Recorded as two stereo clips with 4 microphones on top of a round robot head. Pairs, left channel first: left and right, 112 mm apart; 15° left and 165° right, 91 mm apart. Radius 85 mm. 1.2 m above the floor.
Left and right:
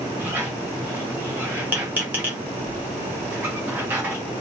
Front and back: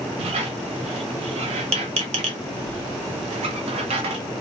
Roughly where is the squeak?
Behind.